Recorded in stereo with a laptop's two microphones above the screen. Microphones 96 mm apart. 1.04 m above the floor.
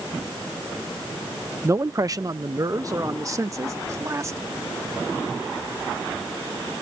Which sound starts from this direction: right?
A man speaking, at 1.6 s.